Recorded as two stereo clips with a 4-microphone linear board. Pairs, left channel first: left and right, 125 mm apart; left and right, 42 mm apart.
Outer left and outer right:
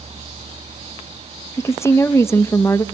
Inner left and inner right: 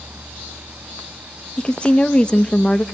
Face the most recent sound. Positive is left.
turn(degrees=20)  # may be behind; listen again after turning